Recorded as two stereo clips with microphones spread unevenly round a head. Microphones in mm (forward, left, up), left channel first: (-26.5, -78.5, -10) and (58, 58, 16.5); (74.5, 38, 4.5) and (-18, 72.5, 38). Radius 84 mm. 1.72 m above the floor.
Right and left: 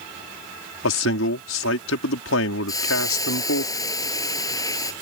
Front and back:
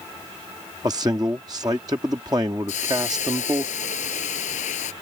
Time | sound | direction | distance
0.8 | a man speaking | 130° right | ?
2.7 | a hiss | 50° right | ?